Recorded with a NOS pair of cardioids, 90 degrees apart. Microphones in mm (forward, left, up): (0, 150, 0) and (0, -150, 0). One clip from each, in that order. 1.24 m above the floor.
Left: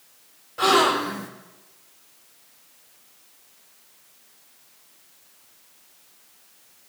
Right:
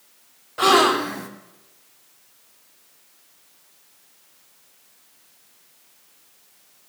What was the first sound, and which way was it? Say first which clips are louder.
A gasp: right 2 dB; 30° right.